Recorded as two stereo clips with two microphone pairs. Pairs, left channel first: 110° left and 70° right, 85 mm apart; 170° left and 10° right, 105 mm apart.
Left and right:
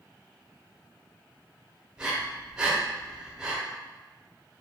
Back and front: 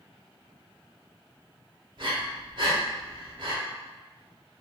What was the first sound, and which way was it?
Breathing, 10° left.